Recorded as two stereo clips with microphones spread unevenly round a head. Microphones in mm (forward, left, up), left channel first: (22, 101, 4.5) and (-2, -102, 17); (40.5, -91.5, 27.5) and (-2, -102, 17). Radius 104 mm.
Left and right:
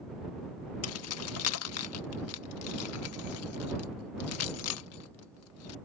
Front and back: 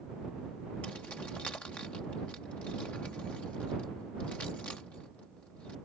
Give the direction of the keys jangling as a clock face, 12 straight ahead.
9 o'clock.